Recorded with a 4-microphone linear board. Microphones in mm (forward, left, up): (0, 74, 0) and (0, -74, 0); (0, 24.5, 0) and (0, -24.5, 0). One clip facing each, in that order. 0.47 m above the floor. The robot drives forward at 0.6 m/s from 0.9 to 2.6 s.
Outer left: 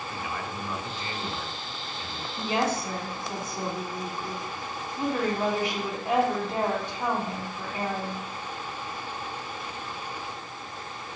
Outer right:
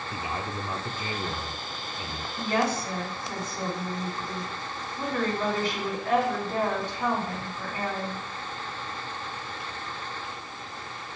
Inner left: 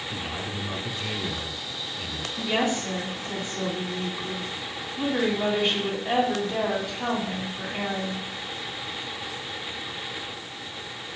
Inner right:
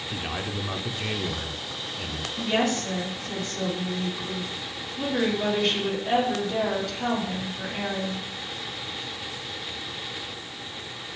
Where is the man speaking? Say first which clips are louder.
Outer right 3 dB, inner right 4 dB; 30° right (ahead or behind), 0.7 m; by 2.3 s 20° right (ahead or behind), 1.1 m.